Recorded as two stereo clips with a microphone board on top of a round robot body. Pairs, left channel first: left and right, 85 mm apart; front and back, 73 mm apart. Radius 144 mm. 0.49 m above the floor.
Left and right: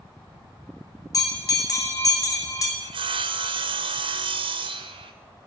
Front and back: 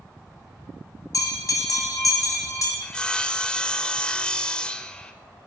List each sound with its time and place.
1.1 s a bell: 40° left, 3 m
2.8 s sawing: 80° right, 0.6 m